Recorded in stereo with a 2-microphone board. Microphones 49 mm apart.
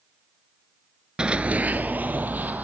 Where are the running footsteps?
20° right (ahead or behind), 0.6 m; by 2.6 s 35° right (ahead or behind), 1.6 m.